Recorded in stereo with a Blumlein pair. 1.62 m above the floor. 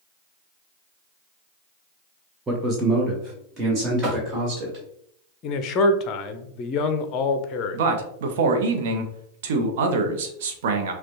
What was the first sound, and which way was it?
A man speaking, 10° right.